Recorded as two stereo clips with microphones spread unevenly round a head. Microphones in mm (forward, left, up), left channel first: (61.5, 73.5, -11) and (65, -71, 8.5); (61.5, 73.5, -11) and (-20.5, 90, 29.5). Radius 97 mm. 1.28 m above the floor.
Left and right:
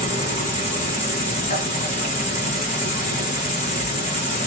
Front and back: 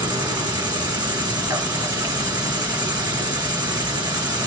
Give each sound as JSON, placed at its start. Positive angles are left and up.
{"t": 0.0, "sound": "an insect", "azimuth_deg": 115, "distance_m": 1.7}